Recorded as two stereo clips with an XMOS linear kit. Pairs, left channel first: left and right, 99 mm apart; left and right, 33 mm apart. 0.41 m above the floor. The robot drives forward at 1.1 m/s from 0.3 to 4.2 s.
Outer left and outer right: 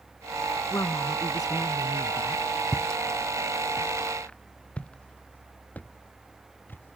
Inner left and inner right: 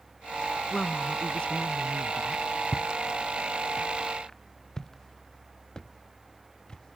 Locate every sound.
0.7 s a woman speaking: 30° left (ahead or behind); by 2.4 s 45° left (ahead or behind)
2.7 s footsteps: 5° left (ahead or behind); by 7.0 s 20° left (ahead or behind)